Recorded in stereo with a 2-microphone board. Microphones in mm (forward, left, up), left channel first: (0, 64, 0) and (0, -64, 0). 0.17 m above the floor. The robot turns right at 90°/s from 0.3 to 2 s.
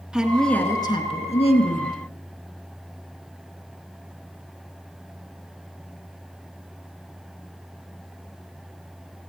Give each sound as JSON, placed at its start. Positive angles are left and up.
{"t": 0.1, "sound": "a woman speaking", "azimuth_deg": -5, "distance_m": 2.5}